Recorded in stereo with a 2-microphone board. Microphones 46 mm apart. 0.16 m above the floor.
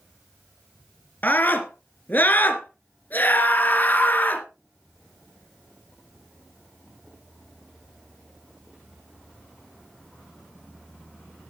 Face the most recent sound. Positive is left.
turn(degrees=40)  # may be behind; listen again after turning